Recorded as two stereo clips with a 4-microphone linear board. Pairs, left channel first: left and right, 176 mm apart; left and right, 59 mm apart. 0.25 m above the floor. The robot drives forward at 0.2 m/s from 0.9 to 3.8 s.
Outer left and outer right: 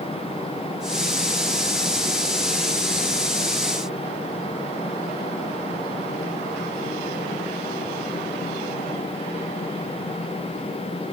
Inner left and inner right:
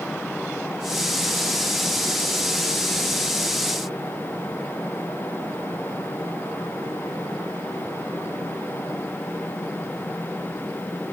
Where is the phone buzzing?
I don't hear a phone buzzing.